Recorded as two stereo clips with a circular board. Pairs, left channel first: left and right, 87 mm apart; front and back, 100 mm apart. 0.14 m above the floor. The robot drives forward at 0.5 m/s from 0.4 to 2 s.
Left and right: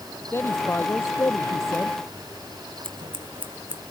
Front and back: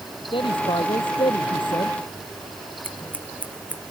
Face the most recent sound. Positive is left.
turn(degrees=-75)